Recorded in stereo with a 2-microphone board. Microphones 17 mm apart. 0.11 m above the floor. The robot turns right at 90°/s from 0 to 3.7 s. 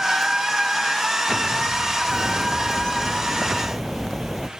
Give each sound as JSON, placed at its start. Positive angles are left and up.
{"t": 2.1, "sound": "a bird", "azimuth_deg": 20}